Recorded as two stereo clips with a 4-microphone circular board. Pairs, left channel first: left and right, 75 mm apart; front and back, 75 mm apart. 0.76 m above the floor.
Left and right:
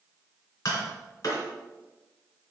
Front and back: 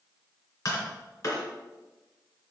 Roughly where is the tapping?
Ahead left.